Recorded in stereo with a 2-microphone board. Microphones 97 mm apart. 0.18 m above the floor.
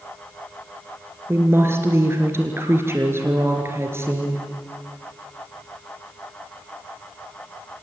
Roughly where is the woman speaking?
Right.